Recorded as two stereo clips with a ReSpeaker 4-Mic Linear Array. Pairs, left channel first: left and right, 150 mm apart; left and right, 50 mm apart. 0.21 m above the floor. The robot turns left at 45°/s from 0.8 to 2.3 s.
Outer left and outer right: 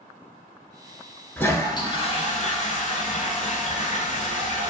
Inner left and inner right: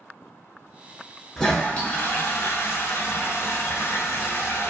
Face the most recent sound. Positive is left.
turn(degrees=130)